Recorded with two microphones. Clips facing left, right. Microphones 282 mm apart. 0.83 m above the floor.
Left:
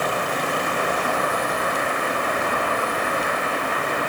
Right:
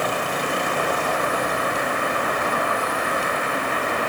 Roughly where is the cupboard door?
I don't hear a cupboard door.